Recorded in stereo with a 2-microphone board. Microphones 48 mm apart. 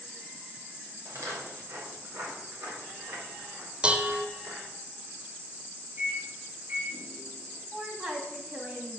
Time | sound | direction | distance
1.1 | footsteps | 75° right (ahead or behind) | 5 m
3.8 | dishes clattering | 20° right (ahead or behind) | 0.7 m
6.0 | a microwave | 50° right (ahead or behind) | 4.5 m
7.7 | a woman speaking | 30° right (ahead or behind) | 2 m